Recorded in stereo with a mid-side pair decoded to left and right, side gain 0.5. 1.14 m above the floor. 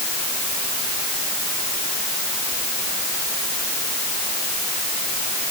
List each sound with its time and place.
Only background noise.